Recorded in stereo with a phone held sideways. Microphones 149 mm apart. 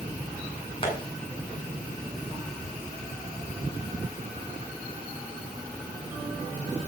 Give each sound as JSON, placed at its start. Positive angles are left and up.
{"t": 0.8, "sound": "tapping", "side_deg": 35, "distance_m": 8.5}